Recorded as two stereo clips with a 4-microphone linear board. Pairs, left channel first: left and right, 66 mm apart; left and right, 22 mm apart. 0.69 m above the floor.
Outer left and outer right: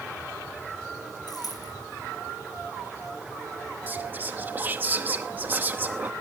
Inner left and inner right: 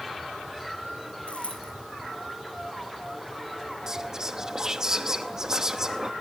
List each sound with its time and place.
1.3 s a dropped coin: 75° left (ahead or behind), 7 m
3.9 s whispering: 30° right (ahead or behind), 0.8 m